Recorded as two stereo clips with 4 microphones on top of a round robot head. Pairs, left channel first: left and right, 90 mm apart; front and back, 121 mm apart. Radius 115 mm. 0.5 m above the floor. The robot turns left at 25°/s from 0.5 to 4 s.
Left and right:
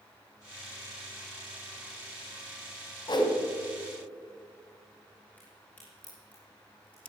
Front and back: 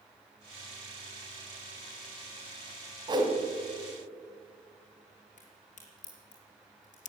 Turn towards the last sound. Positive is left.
turn(degrees=15)